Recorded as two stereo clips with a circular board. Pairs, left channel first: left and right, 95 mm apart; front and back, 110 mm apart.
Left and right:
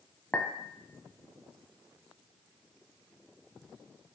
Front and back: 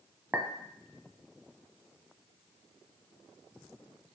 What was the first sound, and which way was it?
A clink, 140° left.